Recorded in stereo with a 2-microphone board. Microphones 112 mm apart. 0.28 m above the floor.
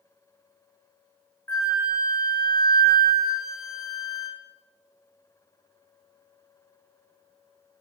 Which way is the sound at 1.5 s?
25° left (ahead or behind).